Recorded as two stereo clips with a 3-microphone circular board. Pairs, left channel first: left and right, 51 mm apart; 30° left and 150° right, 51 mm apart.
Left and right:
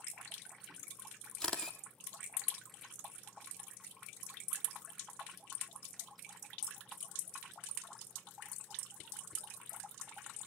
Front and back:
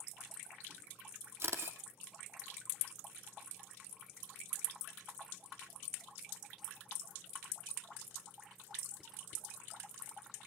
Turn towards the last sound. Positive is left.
turn(degrees=170)